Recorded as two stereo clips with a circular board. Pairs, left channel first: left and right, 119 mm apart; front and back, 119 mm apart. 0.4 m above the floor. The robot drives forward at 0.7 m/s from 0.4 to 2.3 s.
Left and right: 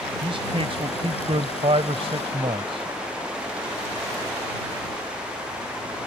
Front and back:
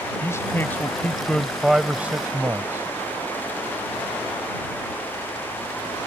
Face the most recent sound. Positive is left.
turn(degrees=-110)